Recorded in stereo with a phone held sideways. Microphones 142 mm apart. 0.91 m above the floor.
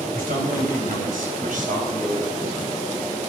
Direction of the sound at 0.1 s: 85° right.